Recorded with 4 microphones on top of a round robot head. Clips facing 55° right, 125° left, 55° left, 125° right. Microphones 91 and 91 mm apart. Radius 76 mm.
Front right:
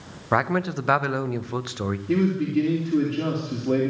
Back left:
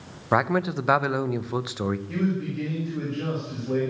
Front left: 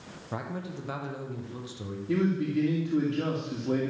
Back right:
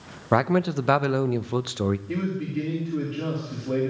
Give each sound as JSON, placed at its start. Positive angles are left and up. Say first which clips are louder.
{"t": 0.3, "sound": "a man speaking", "louder": "even, back right 15 dB", "azimuth_deg": -145, "distance_m": 0.5}
{"t": 2.1, "sound": "a man speaking", "louder": "front right 5 dB, front left 2 dB", "azimuth_deg": -20, "distance_m": 2.5}